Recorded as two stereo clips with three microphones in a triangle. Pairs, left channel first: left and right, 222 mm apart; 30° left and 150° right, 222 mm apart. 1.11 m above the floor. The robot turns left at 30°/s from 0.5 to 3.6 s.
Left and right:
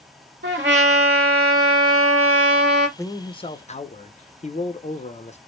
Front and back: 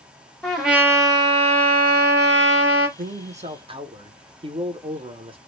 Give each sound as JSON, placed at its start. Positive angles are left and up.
{"t": 0.4, "sound": "a trumpet", "azimuth_deg": -60, "distance_m": 0.9}
{"t": 3.0, "sound": "a man speaking", "azimuth_deg": 170, "distance_m": 0.5}